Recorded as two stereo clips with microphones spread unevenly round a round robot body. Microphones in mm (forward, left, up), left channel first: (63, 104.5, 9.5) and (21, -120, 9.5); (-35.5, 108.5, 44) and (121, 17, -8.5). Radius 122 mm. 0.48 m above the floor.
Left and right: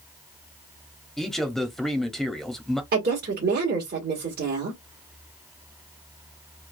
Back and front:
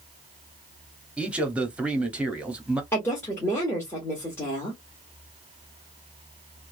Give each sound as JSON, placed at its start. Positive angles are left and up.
{"t": 1.2, "sound": "a man speaking", "azimuth_deg": -5, "distance_m": 0.8}
{"t": 2.9, "sound": "a woman speaking", "azimuth_deg": -120, "distance_m": 1.3}